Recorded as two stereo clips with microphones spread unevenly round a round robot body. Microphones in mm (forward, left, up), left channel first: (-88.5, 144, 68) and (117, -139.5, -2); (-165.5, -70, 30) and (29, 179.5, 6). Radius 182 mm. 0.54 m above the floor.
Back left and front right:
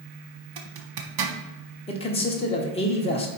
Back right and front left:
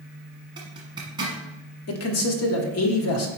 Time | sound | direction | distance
0.6 | a zipper | 25° right | 1.0 m
1.9 | a man speaking | 155° right | 1.2 m